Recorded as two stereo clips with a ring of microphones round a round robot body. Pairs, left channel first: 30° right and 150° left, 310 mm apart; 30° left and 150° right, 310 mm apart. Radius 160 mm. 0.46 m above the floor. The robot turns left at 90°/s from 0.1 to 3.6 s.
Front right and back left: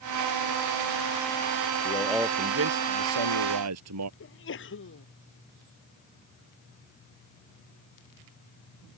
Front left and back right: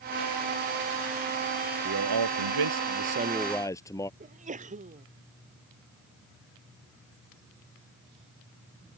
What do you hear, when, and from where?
1.9 s a man speaking: 90° right; by 4.1 s 110° left
4.2 s a sneeze: 85° right